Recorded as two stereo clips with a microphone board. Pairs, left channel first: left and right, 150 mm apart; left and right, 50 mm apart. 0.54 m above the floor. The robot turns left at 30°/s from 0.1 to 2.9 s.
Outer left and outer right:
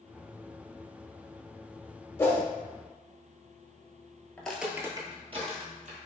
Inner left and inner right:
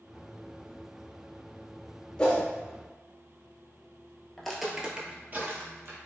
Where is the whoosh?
15° left (ahead or behind), 0.5 m; by 2.4 s 10° left (ahead or behind), 0.5 m.